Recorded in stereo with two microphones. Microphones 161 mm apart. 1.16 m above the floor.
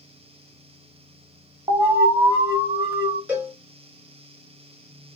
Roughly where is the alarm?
Right.